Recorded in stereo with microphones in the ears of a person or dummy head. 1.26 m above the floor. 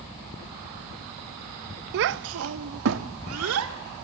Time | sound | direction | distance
1.9 | a child speaking | 55° right (ahead or behind) | 0.7 m